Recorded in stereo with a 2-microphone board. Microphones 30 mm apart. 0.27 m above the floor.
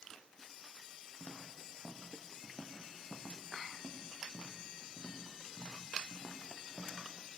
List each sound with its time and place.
1.2 s footsteps: 50° left (ahead or behind), 4.5 m; by 7.0 s 80° left, 5.5 m